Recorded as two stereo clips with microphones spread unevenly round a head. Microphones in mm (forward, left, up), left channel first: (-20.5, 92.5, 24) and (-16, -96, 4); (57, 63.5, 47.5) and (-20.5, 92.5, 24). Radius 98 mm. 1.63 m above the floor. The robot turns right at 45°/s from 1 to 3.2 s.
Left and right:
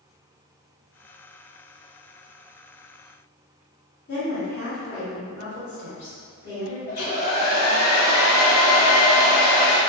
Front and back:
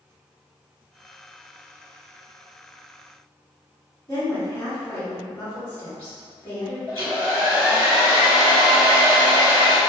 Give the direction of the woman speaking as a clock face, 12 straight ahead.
11 o'clock.